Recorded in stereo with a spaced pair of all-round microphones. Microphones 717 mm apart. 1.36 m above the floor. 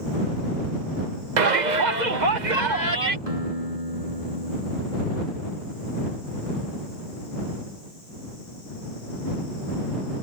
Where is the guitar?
55° right (ahead or behind).